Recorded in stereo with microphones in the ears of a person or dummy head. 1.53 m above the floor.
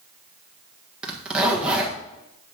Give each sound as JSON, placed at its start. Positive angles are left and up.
{"t": 1.0, "sound": "a zipper", "side_deg": -5, "distance_m": 1.6}